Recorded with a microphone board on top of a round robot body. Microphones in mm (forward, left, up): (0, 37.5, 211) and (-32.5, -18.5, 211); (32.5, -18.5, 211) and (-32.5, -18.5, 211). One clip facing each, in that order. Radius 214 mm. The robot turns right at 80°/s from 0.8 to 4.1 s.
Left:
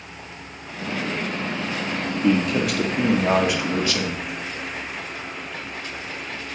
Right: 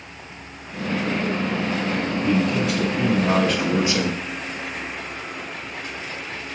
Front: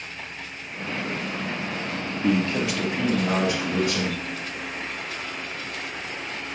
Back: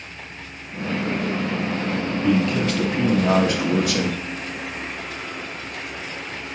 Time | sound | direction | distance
2.2 | a man speaking | 40° left | 1.4 m